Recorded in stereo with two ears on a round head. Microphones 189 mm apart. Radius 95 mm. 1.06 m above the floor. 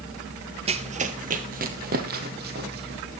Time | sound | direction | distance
0.7 | running footsteps | 30° right (ahead or behind) | 1.3 m